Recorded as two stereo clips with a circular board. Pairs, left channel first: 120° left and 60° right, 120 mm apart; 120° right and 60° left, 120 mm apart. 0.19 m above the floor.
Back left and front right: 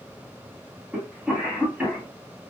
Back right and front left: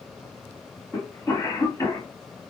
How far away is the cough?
About 1.3 m.